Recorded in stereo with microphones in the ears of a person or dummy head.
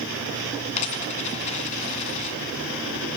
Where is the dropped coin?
35° left (ahead or behind), 1.9 m.